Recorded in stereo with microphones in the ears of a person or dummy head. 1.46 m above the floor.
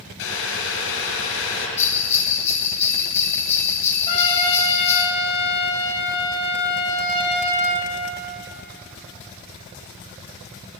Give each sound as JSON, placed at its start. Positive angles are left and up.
{"t": 0.2, "sound": "boiling", "side_deg": 75, "distance_m": 5.0}
{"t": 1.8, "sound": "a bell", "side_deg": 15, "distance_m": 1.2}
{"t": 4.1, "sound": "a trumpet", "side_deg": 35, "distance_m": 3.5}